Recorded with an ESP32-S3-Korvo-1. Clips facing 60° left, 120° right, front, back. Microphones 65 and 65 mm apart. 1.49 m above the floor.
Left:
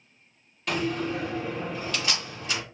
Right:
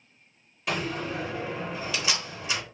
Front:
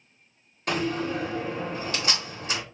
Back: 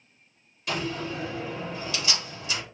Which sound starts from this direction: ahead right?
A door slam, at 0.7 s.